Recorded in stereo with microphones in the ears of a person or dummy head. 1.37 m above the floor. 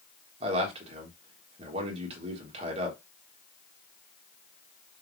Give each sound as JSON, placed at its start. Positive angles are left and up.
{"t": 0.4, "sound": "a man speaking", "side_deg": -35, "distance_m": 1.2}